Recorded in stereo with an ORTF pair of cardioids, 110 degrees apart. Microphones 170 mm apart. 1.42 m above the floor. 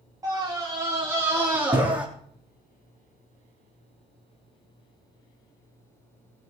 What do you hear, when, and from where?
0.2 s a scream: 20° right, 4 m; by 2.1 s 10° right, 3 m